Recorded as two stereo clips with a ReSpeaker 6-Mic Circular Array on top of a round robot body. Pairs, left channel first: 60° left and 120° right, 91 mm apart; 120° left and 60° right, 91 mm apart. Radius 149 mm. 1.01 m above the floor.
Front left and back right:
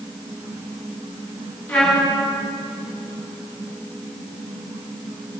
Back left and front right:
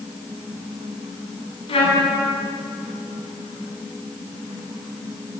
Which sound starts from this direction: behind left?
A trumpet, at 1.7 s.